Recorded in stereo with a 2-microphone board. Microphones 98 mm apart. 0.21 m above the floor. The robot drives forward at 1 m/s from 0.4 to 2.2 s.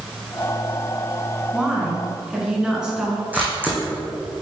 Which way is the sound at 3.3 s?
15° right (ahead or behind).